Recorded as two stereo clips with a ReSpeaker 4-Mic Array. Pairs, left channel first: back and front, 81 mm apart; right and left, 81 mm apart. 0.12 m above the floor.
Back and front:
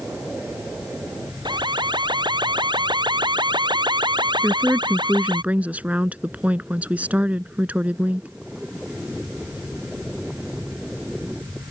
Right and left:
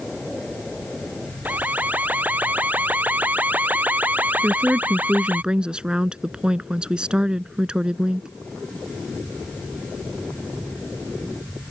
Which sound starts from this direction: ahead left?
A woman speaking, at 4.4 s.